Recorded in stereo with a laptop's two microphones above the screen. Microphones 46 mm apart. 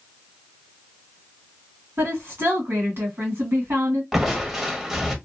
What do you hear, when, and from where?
2.0 s a woman speaking: 65° right (ahead or behind), 1.6 m
4.1 s crushing: 10° right (ahead or behind), 1.0 m